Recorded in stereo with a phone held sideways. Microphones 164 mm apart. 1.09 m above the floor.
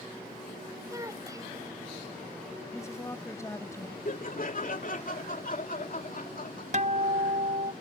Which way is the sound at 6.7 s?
50° right (ahead or behind).